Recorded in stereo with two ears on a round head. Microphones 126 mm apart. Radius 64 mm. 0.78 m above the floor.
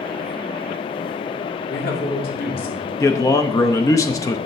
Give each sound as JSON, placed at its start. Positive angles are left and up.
{"t": 1.7, "sound": "a man speaking", "side_deg": 70, "distance_m": 2.5}
{"t": 3.0, "sound": "a man speaking", "side_deg": 20, "distance_m": 0.7}